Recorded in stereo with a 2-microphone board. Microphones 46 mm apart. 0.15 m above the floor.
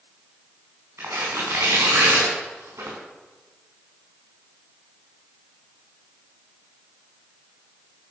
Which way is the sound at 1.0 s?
85° right.